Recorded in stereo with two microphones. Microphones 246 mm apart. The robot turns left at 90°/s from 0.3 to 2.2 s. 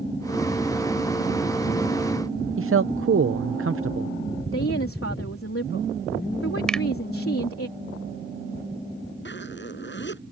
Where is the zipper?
50° left (ahead or behind).